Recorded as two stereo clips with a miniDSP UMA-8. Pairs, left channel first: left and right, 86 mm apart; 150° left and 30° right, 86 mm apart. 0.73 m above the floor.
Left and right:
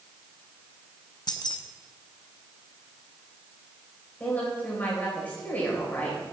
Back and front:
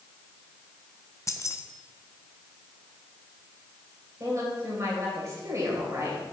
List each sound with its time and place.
1.3 s keys jangling: 105° left, 0.7 m
4.2 s a woman speaking: 20° left, 3 m